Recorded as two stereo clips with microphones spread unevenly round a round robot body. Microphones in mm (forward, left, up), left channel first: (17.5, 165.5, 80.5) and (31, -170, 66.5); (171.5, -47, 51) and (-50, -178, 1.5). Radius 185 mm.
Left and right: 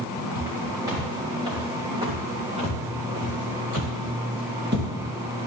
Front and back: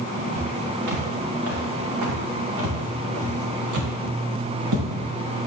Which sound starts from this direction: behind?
Footsteps, at 0.3 s.